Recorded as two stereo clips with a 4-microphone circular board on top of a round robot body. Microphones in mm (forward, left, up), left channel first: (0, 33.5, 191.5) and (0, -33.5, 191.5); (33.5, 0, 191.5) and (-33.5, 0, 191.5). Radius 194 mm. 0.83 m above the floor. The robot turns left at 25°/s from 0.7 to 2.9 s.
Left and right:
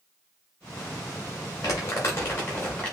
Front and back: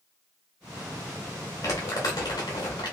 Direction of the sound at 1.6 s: 45° left.